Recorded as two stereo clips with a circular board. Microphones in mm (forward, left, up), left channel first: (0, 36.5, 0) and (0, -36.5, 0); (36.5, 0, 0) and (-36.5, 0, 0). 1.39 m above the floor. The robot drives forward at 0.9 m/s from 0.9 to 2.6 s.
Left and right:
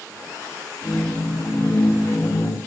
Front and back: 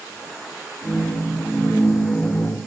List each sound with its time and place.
Only background noise.